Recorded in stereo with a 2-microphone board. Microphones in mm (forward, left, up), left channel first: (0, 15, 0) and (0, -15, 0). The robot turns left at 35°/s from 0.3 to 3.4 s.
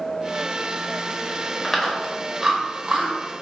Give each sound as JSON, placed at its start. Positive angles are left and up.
{"t": 1.6, "sound": "chewing", "side_deg": 15, "distance_m": 1.0}